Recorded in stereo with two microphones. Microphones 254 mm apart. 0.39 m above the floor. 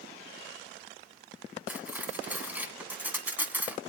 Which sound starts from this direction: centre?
Cutlery clinking, at 1.7 s.